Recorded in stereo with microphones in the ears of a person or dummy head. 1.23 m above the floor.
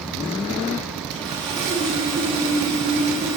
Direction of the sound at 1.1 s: 25° right (ahead or behind).